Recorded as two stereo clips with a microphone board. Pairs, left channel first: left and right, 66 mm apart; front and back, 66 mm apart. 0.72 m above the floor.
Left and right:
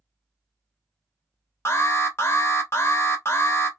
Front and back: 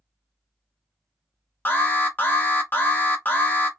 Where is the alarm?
50° left, 1.0 m.